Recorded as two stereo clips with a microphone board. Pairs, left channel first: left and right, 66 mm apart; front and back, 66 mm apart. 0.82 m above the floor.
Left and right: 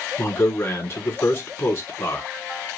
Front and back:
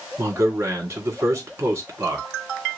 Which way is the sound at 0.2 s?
135° left.